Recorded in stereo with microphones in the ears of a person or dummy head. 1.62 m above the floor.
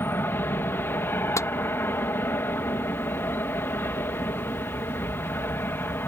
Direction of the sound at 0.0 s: 10° left (ahead or behind).